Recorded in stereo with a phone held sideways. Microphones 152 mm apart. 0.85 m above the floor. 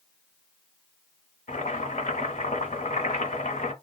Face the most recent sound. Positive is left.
turn(degrees=55)  # may be behind; listen again after turning